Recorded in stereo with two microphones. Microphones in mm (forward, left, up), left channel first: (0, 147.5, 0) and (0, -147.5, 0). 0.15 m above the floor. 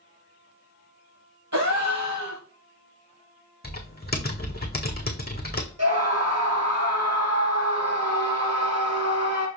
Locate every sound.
1.5 s a gasp: 70° right (ahead or behind), 3 m
3.6 s typing on a keyboard: 35° left (ahead or behind), 1.4 m
5.8 s a scream: 60° right (ahead or behind), 3.5 m